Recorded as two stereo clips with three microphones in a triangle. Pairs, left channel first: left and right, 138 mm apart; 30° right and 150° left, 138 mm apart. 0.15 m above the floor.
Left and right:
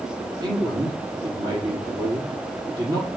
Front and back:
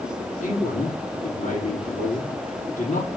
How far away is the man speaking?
About 4.5 m.